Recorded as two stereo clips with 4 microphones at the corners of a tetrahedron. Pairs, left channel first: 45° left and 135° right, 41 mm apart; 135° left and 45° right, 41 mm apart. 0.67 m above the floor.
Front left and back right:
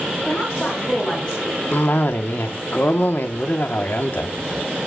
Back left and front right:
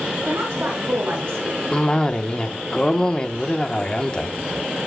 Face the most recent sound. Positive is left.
turn(degrees=70)